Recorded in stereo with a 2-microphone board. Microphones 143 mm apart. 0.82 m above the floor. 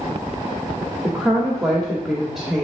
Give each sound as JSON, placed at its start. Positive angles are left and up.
{"t": 1.0, "sound": "a woman speaking", "side_deg": 0, "distance_m": 1.6}